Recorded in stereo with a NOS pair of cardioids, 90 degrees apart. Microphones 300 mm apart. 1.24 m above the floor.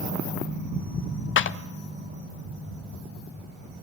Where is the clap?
45° left, 0.7 m.